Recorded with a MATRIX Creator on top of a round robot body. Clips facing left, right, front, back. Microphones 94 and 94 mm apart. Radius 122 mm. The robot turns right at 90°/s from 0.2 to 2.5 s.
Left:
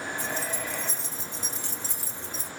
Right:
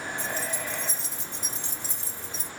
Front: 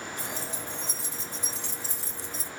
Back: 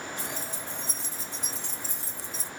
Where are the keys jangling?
160° right, 2.5 m; by 2.5 s 50° left, 2.5 m.